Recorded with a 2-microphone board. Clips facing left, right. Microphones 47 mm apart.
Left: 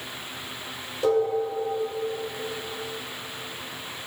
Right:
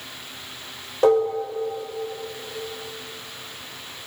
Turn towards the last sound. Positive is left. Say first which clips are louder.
# right 4 dB
turn(degrees=-60)  # may be behind; listen again after turning